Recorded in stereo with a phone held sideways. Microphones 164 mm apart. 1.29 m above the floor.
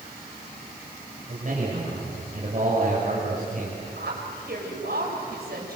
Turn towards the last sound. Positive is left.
turn(degrees=-75)  # may be behind; listen again after turning